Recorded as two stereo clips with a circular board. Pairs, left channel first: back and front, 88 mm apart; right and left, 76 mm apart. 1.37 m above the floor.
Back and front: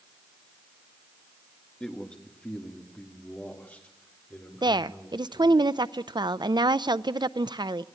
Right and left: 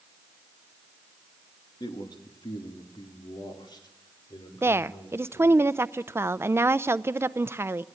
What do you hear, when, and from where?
1.8 s a man speaking: 105° right, 2 m; by 5.6 s 110° right, 5.5 m
4.6 s a woman speaking: 30° left, 0.5 m